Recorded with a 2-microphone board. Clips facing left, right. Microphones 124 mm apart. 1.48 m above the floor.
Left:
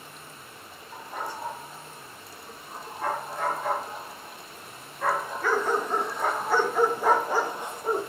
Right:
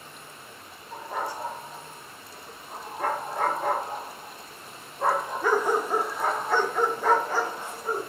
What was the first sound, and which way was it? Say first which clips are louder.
A dog barking: right 4 dB; 75° right (ahead or behind).